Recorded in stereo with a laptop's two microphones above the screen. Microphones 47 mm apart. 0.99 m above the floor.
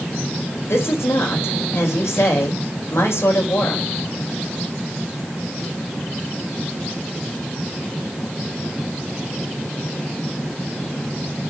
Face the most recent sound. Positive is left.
turn(degrees=75)  # may be behind; listen again after turning